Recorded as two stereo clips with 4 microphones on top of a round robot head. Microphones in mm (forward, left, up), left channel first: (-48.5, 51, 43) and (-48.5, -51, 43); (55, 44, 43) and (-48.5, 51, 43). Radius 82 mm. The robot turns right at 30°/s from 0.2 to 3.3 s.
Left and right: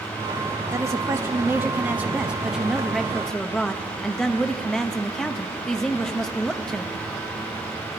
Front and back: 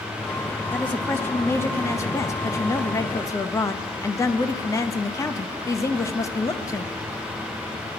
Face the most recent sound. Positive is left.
turn(degrees=10)